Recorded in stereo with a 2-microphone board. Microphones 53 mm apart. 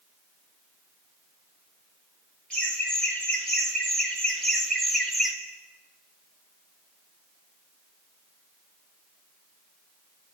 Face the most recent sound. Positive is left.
turn(degrees=0)  # may be behind; listen again after turning